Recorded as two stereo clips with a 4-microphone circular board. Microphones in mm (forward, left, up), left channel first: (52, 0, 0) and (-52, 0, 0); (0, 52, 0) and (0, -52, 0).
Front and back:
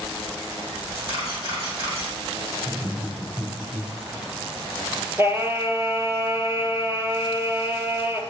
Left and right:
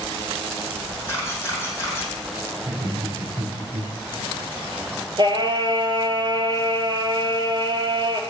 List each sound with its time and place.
1.1 s a camera shutter: 155° left, 5 m
2.6 s laughter: 125° right, 4 m
5.2 s singing: 120° right, 1.3 m